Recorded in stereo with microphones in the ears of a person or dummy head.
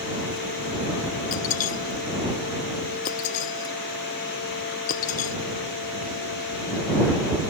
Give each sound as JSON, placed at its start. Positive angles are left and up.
{"t": 1.3, "sound": "breaking glass", "side_deg": 50}